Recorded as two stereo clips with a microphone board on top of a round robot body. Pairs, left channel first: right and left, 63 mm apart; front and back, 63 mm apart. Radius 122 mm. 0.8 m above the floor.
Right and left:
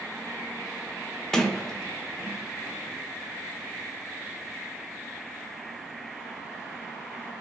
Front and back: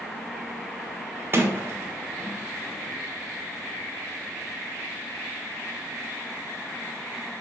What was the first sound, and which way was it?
A sliding door, 165° right.